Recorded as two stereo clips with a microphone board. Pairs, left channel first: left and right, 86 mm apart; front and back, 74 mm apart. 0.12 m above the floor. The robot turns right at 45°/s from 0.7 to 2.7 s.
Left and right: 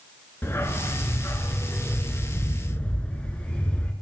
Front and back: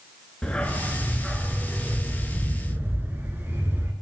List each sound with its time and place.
0.4 s a dog barking: 60° left, 0.7 m; by 3.9 s 150° left, 0.7 m